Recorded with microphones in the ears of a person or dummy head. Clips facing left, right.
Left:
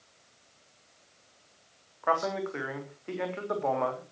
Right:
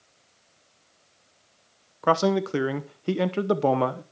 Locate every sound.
2.0 s a man speaking: 45° right (ahead or behind), 0.8 m